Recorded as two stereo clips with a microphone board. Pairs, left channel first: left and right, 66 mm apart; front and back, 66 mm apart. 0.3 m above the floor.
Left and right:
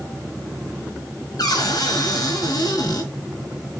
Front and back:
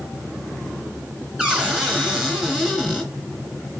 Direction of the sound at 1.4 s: 100° left.